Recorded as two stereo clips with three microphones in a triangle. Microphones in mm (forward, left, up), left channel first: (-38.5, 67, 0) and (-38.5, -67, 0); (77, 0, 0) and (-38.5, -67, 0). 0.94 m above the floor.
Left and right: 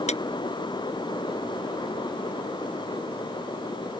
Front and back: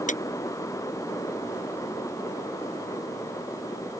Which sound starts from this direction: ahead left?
A clap, at 0.1 s.